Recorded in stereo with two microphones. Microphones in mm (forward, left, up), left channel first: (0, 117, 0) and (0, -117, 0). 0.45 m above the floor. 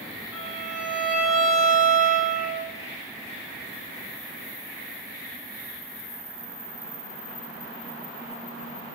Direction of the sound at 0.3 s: 50° left (ahead or behind).